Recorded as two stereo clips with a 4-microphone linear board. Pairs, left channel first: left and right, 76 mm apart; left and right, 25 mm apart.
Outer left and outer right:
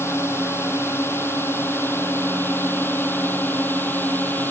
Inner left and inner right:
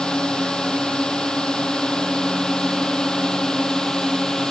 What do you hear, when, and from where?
0.0 s a drone: 35° left (ahead or behind); by 4.5 s 25° left (ahead or behind)